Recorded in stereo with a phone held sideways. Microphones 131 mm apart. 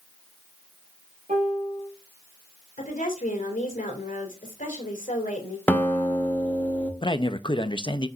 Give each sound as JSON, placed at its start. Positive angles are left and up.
{"t": 1.3, "sound": "a piano", "side_deg": -75, "distance_m": 3.5}
{"t": 2.8, "sound": "a woman speaking", "side_deg": 85, "distance_m": 2.5}
{"t": 5.7, "sound": "a guitar", "side_deg": 15, "distance_m": 1.1}
{"t": 7.0, "sound": "a man speaking", "side_deg": 40, "distance_m": 0.6}